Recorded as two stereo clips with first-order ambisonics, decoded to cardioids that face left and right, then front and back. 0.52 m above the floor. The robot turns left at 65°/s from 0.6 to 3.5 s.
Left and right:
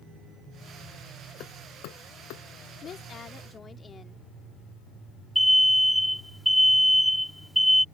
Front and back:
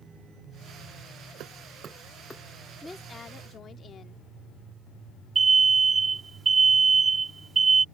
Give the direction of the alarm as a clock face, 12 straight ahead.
6 o'clock.